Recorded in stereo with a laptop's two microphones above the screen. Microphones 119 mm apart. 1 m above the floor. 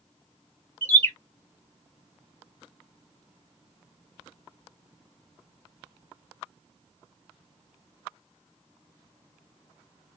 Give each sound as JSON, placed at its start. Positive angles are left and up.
{"t": 0.8, "sound": "a bird", "side_deg": 15, "distance_m": 0.7}